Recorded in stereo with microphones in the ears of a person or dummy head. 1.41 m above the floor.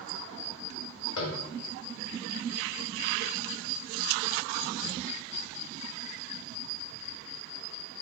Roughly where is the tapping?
Left.